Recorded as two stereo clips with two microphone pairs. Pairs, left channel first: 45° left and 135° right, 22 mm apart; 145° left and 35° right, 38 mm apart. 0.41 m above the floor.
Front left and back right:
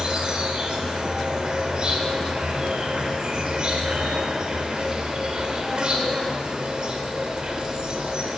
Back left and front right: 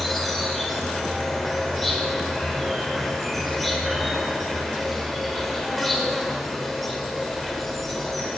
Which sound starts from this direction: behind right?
An insect, at 0.0 s.